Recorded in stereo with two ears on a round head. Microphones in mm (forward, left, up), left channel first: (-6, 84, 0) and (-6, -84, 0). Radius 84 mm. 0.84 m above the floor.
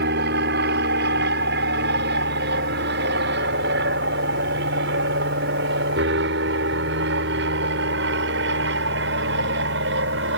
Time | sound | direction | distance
0.0 | an aircraft | 60° right (ahead or behind) | ?